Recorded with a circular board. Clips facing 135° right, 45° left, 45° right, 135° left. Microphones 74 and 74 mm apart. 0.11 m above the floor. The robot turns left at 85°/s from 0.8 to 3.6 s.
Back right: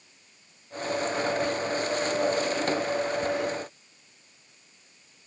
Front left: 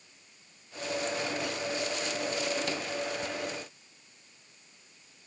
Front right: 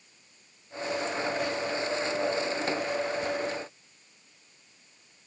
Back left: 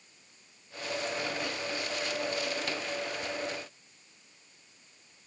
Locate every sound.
Only background noise.